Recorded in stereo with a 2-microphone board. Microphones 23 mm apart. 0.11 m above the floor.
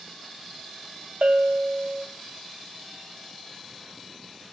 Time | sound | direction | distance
1.2 | a bell | 60° right (ahead or behind) | 0.8 m